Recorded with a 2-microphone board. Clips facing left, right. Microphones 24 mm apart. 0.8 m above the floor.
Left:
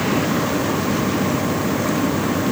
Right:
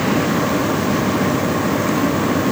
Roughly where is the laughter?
I don't hear laughter.